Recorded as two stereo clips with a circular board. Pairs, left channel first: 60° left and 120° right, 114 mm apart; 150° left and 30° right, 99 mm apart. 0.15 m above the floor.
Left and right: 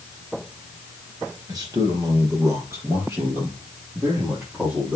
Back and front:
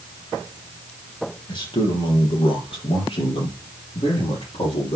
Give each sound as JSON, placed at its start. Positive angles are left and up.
{"t": 1.5, "sound": "a man speaking", "azimuth_deg": -175, "distance_m": 3.5}